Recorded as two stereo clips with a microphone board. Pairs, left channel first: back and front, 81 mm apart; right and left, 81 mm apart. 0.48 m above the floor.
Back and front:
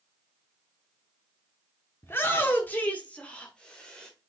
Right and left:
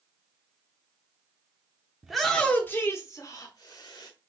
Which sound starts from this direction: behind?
A shout, at 2.0 s.